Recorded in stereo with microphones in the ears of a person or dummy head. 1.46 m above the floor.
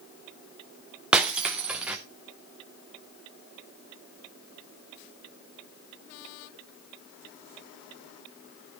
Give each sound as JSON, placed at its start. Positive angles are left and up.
{"t": 1.1, "sound": "breaking glass", "side_deg": -5, "distance_m": 0.6}